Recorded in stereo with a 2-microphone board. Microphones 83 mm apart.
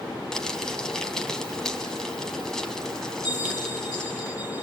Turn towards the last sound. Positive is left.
turn(degrees=45)  # may be behind; listen again after turning